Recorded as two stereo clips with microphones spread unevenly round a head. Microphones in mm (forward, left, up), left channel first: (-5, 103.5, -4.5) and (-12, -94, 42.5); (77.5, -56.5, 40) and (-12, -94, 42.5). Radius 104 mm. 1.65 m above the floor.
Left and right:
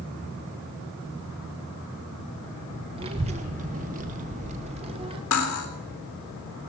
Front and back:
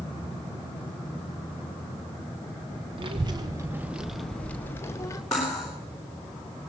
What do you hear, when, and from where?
3.0 s a child speaking: 140° right, 0.8 m; by 5.2 s 35° right, 1.1 m
5.3 s cutlery clinking: 110° left, 3.5 m